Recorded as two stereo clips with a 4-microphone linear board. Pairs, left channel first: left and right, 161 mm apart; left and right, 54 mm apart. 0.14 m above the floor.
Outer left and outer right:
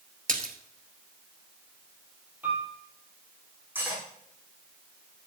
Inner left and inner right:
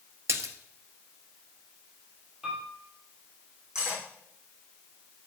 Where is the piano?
10° right (ahead or behind), 3.5 m.